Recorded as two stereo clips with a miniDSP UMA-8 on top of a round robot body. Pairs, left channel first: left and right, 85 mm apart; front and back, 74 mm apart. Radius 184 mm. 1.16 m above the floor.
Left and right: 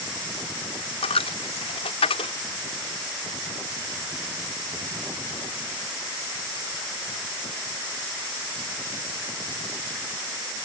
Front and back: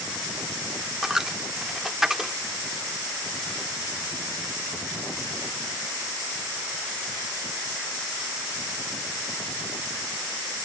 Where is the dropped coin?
95° left.